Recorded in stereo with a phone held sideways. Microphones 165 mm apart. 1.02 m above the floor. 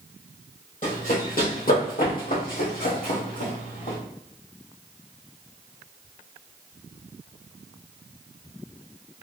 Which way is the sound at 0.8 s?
55° left (ahead or behind).